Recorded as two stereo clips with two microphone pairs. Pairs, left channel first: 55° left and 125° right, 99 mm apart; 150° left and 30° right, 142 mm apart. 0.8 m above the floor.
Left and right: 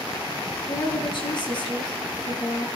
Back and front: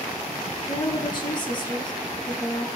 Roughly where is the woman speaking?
Left.